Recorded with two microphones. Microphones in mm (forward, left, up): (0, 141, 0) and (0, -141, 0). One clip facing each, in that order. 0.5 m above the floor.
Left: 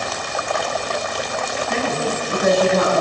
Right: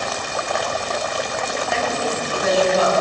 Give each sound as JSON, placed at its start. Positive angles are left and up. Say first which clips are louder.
{"t": 1.7, "sound": "a woman speaking", "louder": "left 2 dB", "side_deg": 45, "distance_m": 4.0}